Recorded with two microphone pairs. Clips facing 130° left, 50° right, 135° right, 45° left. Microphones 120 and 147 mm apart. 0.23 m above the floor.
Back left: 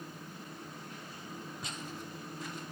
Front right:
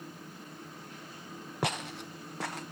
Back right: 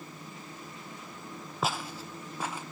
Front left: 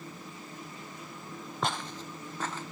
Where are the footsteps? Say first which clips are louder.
Front right 8 dB, back right 1 dB; 50° right, 0.5 m; by 2.6 s 55° right, 1.3 m.